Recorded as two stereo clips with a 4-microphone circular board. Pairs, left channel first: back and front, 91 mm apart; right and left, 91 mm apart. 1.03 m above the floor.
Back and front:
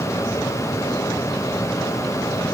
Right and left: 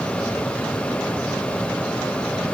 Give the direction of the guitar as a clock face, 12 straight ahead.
No guitar in this recording.